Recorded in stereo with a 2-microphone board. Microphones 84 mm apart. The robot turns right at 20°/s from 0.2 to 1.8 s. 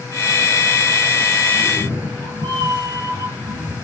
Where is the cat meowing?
45° right (ahead or behind), 4.5 m; by 3.8 s 50° right (ahead or behind), 4.5 m.